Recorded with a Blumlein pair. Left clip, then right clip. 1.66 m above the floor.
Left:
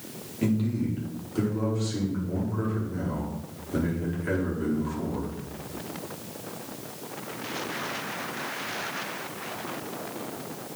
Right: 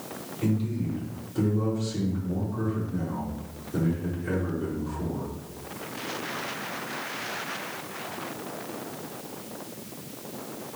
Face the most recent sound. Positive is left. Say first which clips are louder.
# left 2 dB
turn(degrees=60)